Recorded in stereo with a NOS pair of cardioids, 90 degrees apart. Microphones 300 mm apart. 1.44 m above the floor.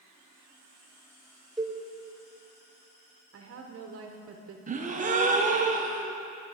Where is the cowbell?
Straight ahead, 1.1 m.